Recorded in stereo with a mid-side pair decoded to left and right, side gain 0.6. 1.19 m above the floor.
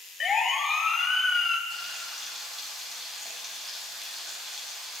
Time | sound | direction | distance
0.2 | a siren | 30° left | 3.5 m
1.7 | frying | 15° right | 7.5 m